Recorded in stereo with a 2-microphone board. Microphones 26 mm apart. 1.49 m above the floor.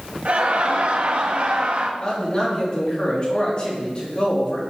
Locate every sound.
0.2 s laughter: 60° right (ahead or behind), 1.2 m
2.0 s a man speaking: 35° left (ahead or behind), 3 m